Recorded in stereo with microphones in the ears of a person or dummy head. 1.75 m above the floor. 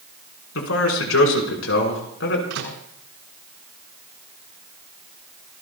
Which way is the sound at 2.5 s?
75° right (ahead or behind).